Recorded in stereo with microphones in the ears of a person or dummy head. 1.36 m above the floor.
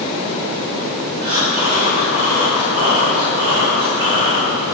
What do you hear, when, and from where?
1.2 s breathing: 45° right (ahead or behind), 3 m